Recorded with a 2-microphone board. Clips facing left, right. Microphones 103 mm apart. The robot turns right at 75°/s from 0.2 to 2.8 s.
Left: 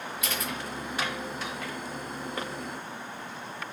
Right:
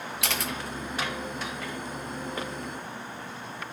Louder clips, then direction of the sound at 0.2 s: Right 2 dB; 85° right.